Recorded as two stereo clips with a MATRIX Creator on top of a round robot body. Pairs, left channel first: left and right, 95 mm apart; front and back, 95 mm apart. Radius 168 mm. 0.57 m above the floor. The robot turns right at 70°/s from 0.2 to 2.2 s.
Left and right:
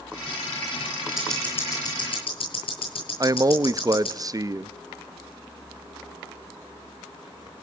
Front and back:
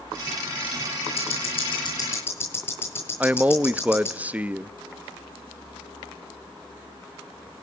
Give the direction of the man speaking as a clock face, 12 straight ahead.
4 o'clock.